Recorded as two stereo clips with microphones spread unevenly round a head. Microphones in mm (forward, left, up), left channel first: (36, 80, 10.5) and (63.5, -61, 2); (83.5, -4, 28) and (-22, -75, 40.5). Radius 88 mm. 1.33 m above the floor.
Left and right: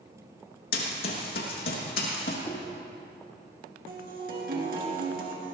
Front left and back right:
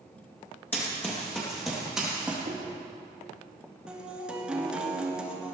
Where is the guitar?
65° right, 3 m.